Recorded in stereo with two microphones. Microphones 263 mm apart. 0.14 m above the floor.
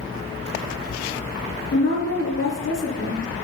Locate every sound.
1.7 s a woman speaking: 50° left (ahead or behind), 2.5 m